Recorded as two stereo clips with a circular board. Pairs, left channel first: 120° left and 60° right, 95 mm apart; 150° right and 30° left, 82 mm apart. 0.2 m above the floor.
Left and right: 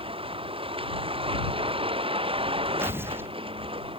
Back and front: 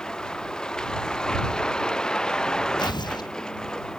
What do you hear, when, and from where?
0.0 s a vehicle: 70° right
2.8 s tearing paper: 125° right